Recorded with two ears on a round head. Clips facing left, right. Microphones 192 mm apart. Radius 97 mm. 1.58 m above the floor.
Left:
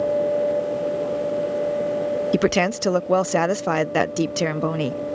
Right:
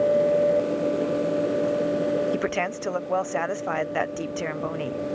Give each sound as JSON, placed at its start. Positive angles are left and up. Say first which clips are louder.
{"t": 2.3, "sound": "a woman speaking", "louder": "left 7 dB", "side_deg": 55}